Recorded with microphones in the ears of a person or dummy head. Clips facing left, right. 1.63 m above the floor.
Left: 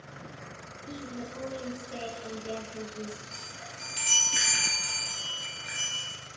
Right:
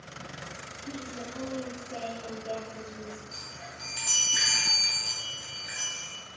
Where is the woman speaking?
80° left, 2.5 m.